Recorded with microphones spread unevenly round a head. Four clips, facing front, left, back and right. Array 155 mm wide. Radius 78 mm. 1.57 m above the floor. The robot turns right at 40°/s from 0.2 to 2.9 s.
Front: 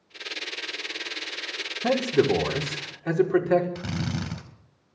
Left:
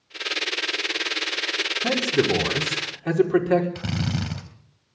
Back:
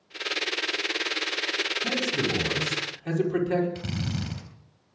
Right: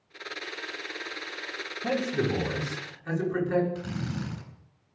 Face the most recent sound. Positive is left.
turn(degrees=65)